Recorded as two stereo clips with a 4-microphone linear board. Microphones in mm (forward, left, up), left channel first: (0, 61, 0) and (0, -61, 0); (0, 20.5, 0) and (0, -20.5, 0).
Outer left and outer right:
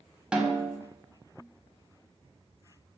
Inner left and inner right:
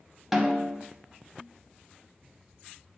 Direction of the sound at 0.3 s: 10° right (ahead or behind).